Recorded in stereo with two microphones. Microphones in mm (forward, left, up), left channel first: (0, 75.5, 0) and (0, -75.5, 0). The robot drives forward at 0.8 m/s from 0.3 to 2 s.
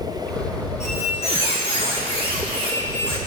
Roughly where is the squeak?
Left.